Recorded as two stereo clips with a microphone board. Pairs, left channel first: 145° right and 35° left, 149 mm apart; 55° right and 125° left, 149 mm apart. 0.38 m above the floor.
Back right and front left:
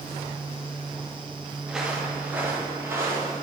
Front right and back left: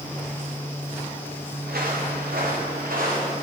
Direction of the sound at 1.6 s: 120° left.